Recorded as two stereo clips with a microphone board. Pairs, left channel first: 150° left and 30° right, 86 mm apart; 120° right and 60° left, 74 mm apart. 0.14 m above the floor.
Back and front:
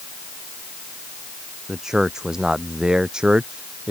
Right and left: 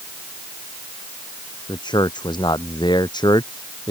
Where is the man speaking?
115° right; by 3.9 s 110° right.